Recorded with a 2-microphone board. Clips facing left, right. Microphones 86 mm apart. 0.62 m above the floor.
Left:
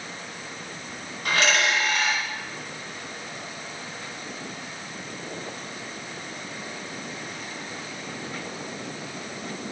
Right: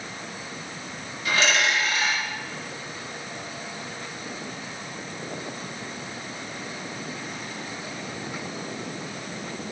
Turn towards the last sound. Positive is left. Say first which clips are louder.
# even
turn(degrees=55)  # may be behind; listen again after turning